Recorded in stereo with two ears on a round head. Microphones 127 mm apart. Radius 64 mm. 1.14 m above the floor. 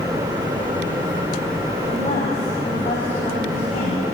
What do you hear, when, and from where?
1.9 s a woman speaking: 35° left (ahead or behind), 6 m; by 4.0 s 40° left (ahead or behind), 7 m